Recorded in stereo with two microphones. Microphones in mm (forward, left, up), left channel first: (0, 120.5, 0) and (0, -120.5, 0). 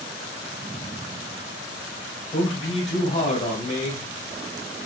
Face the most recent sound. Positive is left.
turn(degrees=30)  # may be behind; listen again after turning